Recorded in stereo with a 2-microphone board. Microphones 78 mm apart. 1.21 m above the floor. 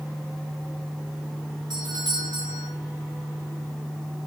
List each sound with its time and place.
1.7 s a doorbell: 65° right (ahead or behind), 5.5 m